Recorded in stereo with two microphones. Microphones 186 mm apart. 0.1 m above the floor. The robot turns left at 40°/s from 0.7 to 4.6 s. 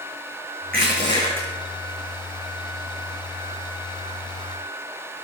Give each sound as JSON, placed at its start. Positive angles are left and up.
{"t": 0.7, "sound": "crushing", "side_deg": -55, "distance_m": 5.5}